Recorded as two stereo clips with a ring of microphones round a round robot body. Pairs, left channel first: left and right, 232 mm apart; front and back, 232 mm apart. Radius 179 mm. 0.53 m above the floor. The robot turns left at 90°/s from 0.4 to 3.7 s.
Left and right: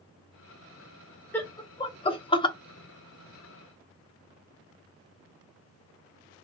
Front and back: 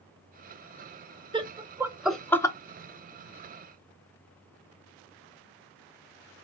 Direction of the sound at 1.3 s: 160° left.